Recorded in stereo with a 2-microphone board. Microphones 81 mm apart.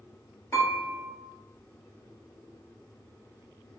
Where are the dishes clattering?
35° left (ahead or behind), 1.5 m.